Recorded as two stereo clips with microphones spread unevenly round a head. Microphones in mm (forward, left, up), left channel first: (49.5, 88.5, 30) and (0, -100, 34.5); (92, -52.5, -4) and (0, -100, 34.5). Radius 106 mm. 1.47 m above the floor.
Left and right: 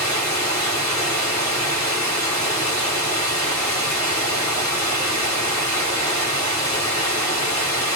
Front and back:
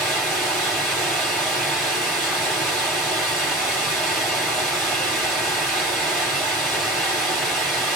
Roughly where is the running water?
Behind left.